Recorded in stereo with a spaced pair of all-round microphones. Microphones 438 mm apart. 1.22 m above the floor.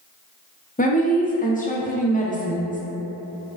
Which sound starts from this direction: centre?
A woman speaking, at 0.8 s.